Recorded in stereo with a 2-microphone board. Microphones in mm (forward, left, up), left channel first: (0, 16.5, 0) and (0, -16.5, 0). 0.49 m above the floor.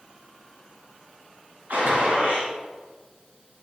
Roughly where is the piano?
No piano in this recording.